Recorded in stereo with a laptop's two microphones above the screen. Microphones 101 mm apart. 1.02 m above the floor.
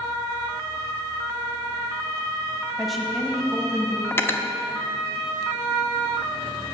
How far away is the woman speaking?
About 0.9 m.